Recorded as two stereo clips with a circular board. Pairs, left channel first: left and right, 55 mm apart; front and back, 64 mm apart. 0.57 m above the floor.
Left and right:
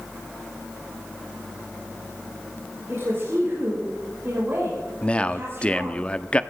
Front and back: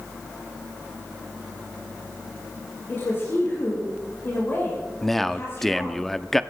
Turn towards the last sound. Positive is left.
turn(degrees=80)